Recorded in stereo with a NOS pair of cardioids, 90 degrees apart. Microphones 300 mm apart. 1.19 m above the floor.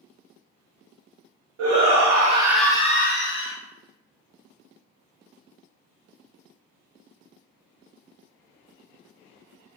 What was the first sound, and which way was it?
A shout, 60° right.